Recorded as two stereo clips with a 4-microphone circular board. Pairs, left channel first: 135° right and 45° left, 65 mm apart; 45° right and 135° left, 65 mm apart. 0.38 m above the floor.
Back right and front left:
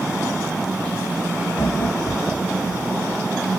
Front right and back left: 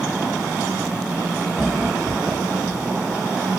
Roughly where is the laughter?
Behind right.